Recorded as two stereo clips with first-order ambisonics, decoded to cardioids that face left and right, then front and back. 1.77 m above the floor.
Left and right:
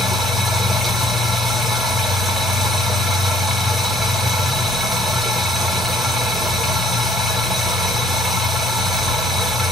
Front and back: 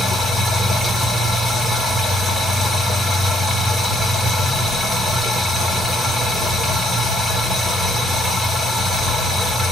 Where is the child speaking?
No child speaking in this recording.